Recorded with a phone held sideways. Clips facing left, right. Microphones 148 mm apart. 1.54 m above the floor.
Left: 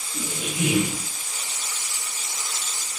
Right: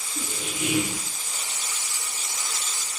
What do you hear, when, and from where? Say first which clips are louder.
0.1 s a squeak: left 4 dB; 85° left, 7 m